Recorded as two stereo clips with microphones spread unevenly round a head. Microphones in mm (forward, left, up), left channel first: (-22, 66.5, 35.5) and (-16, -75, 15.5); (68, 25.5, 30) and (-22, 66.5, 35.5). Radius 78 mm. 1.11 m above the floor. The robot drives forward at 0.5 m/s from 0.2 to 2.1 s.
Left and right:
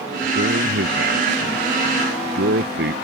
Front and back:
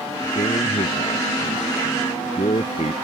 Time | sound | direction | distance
0.3 | a man speaking | 70° right | ?